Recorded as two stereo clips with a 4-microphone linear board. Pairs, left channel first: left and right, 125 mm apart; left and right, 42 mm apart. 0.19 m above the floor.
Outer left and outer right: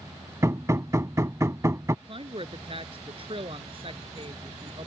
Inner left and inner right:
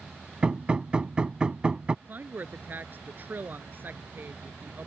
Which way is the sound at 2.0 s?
50° right (ahead or behind).